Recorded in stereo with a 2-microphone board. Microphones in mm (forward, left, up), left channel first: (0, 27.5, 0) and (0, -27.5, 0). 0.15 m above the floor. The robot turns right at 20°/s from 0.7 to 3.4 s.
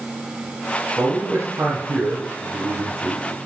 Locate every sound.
1.0 s a man speaking: 135° right, 3.5 m; by 3.5 s 85° right, 3.5 m